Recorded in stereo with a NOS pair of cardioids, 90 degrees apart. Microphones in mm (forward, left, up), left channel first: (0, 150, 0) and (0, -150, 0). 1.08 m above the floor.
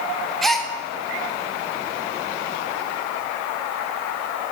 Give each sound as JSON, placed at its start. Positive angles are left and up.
{"t": 0.4, "sound": "a gasp", "azimuth_deg": 0, "distance_m": 1.4}